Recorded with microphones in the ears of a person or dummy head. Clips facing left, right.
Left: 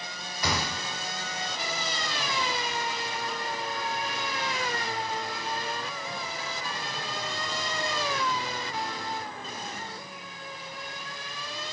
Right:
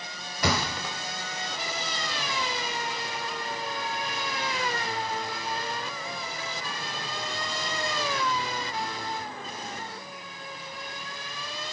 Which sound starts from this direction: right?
A thud, at 0.4 s.